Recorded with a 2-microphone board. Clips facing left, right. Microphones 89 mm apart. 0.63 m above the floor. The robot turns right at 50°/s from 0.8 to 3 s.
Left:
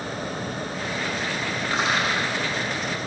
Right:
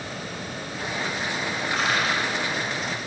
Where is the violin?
I don't hear a violin.